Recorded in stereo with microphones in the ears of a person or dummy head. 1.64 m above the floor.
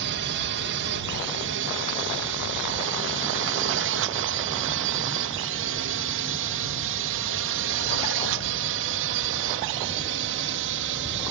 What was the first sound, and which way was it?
A drone, 55° right (ahead or behind).